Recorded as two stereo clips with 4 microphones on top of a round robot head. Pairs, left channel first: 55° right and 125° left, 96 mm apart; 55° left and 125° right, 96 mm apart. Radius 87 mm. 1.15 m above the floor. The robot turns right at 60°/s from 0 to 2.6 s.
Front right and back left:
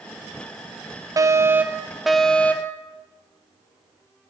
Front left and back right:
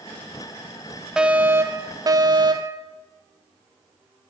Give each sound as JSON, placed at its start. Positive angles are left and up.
{"t": 1.2, "sound": "a fire alarm", "azimuth_deg": 155, "distance_m": 1.4}